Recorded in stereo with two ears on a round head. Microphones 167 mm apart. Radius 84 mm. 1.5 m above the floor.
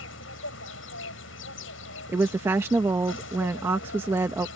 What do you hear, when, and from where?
0.0 s an insect: 80° left
2.1 s a woman speaking: 15° right (ahead or behind)